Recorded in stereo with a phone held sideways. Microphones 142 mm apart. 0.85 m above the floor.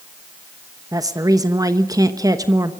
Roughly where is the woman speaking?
Right.